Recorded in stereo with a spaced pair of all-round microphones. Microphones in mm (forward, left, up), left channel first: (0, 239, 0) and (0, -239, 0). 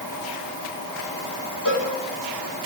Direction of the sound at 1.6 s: 40° left (ahead or behind).